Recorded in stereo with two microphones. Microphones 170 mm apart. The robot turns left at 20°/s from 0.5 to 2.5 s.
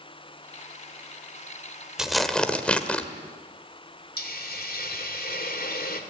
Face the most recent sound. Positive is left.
turn(degrees=65)  # may be behind; listen again after turning